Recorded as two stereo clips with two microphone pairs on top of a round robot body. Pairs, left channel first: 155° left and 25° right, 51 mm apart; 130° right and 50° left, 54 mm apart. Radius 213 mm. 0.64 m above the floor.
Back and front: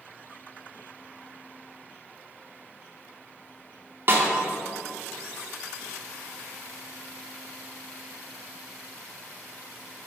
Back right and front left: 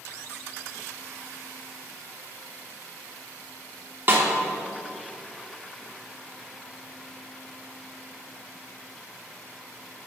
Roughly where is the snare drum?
Ahead.